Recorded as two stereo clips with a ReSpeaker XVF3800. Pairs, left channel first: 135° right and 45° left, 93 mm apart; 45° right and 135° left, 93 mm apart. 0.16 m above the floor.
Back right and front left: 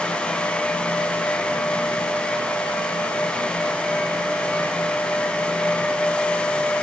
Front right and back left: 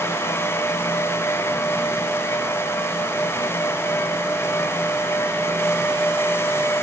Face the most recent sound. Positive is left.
No sound to turn to.